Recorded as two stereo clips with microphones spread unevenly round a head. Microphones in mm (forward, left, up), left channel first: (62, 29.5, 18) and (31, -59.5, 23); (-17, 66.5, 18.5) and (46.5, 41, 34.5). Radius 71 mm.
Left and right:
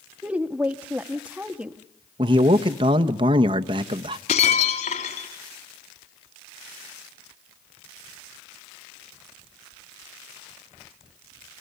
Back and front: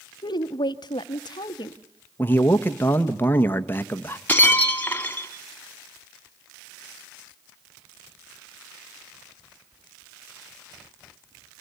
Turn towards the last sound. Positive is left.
turn(degrees=90)